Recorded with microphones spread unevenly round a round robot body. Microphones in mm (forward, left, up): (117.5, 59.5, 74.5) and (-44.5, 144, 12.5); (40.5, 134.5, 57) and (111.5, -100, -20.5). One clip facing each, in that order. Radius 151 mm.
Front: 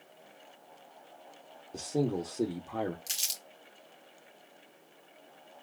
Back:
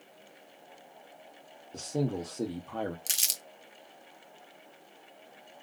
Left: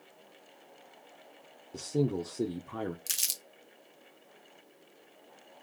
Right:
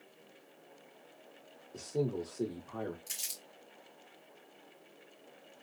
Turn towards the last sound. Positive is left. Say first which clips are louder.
# back 2 dB, left 1 dB
turn(degrees=130)